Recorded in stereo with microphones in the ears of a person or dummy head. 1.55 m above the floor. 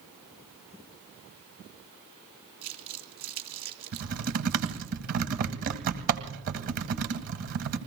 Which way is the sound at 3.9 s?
55° right (ahead or behind).